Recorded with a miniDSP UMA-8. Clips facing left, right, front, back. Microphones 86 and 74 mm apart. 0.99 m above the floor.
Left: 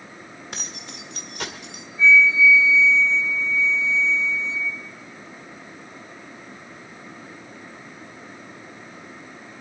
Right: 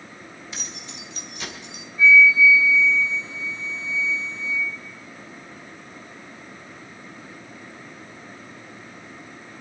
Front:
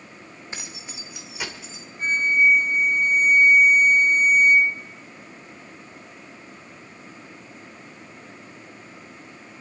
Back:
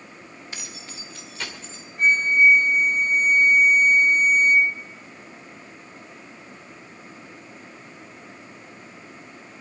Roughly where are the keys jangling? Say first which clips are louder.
Left 1 dB, front 2 dB; ahead left.